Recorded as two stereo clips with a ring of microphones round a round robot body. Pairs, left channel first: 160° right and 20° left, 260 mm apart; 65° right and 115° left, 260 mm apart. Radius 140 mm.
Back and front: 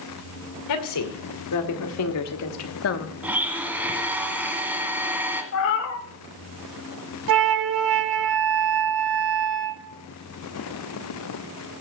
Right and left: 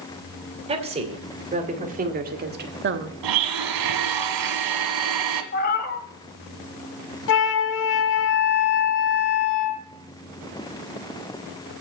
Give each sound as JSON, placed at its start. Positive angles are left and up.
{"t": 0.7, "sound": "a woman speaking", "azimuth_deg": 180, "distance_m": 2.5}
{"t": 3.2, "sound": "a blender", "azimuth_deg": 105, "distance_m": 1.5}
{"t": 5.5, "sound": "a cat meowing", "azimuth_deg": -120, "distance_m": 1.0}
{"t": 7.3, "sound": "a flute", "azimuth_deg": -25, "distance_m": 0.9}